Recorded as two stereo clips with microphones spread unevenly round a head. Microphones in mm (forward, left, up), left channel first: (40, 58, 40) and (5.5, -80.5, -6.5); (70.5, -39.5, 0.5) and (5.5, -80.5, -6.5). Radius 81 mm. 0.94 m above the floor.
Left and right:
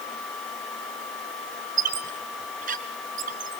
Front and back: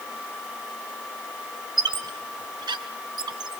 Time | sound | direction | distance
1.8 | a squeak | 150° right | 1.4 m